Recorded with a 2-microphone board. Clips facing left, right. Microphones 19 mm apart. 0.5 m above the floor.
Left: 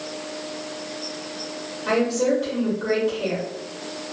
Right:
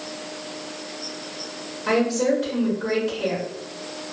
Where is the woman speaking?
10° right (ahead or behind), 1.0 m.